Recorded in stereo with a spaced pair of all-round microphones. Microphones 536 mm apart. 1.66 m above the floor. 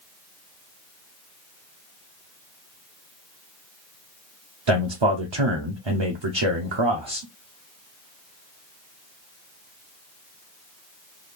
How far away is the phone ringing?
I don't hear a phone ringing.